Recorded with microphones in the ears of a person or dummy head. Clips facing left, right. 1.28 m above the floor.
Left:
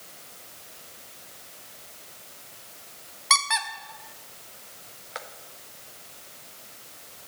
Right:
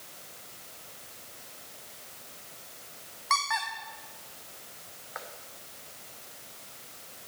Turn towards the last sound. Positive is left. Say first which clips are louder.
# left 2 dB
turn(degrees=50)  # may be behind; listen again after turning